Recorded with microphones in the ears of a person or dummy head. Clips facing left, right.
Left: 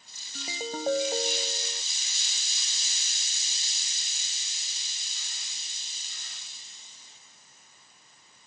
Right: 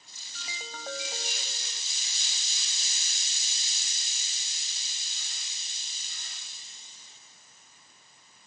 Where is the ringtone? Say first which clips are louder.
Left 11 dB; 30° left (ahead or behind).